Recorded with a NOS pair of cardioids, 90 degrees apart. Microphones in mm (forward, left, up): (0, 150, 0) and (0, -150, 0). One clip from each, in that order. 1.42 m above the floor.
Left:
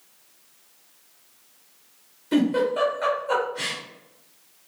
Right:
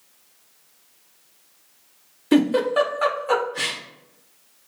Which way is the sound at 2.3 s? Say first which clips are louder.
Right 4 dB; 60° right.